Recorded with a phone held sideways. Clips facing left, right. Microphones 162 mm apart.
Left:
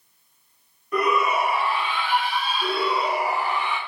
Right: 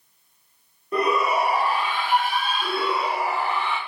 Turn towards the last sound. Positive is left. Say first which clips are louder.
# left 3 dB
turn(degrees=15)  # may be behind; listen again after turning